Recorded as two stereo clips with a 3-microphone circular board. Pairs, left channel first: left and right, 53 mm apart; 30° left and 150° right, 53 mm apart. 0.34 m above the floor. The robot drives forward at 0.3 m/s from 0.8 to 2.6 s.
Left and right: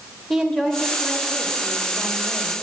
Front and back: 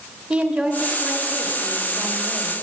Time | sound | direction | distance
0.3 | a woman speaking | 165° left | 1.0 m